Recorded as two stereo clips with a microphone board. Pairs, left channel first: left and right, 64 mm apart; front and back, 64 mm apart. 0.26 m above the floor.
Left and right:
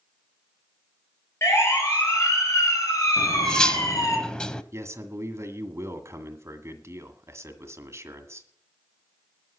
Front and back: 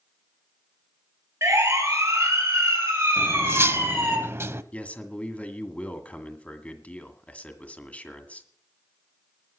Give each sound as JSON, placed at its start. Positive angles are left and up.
{"t": 1.4, "sound": "a siren", "azimuth_deg": 135, "distance_m": 4.5}
{"t": 3.2, "sound": "cutlery clinking", "azimuth_deg": 160, "distance_m": 0.7}
{"t": 4.7, "sound": "a man speaking", "azimuth_deg": -65, "distance_m": 1.8}